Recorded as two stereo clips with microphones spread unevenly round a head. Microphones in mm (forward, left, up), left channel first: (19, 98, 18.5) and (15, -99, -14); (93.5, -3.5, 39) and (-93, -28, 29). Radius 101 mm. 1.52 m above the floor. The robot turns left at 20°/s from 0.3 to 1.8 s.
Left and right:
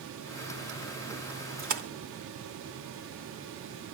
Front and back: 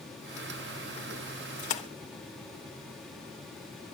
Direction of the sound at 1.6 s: 40° right.